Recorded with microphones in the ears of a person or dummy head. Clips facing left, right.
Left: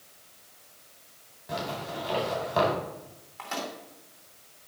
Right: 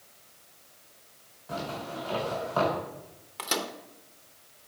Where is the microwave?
50° right (ahead or behind), 0.7 m.